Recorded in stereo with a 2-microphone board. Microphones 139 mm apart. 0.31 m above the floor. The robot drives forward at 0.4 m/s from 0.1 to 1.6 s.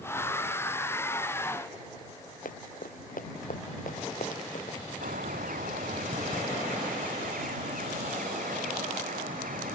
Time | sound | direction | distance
2.5 | running footsteps | 80° left | ?
5.0 | a bird | 80° right | ?